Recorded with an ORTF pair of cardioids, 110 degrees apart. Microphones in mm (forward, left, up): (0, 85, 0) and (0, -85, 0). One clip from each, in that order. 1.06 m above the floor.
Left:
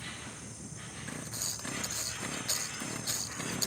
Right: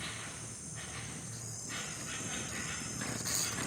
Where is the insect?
40° right, 4.5 m.